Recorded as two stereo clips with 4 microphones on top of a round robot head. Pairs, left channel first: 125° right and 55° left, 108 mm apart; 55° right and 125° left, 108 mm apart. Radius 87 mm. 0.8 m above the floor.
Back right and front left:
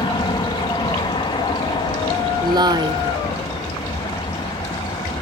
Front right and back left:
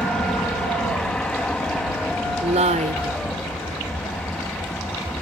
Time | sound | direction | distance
0.0 | an aircraft | 135° right | ?
2.4 | a woman speaking | 105° left | ?